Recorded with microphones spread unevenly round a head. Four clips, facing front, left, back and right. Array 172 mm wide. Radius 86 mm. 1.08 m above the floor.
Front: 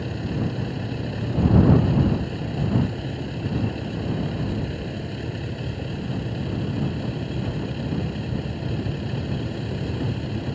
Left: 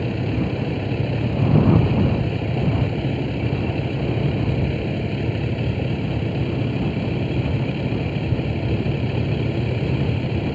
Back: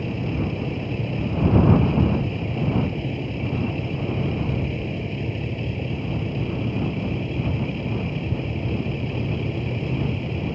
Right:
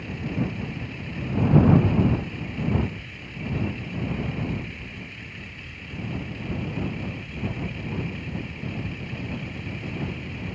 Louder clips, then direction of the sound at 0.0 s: Left 6 dB, back 1 dB; 100° left.